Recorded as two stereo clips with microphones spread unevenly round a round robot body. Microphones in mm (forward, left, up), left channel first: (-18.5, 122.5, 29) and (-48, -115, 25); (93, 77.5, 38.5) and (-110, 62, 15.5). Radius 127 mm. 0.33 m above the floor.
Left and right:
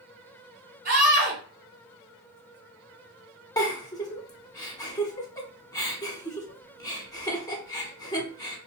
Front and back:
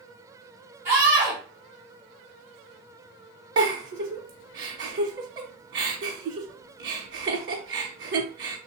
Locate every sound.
0.8 s a scream: 135° right, 1.6 m
3.6 s a giggle: 160° left, 0.8 m